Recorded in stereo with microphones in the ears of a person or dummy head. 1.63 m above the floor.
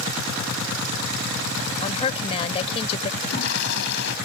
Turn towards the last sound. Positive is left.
turn(degrees=60)  # may be behind; listen again after turning